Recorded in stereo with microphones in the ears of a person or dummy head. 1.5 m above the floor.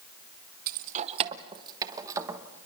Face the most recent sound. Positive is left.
turn(degrees=-15)  # may be behind; listen again after turning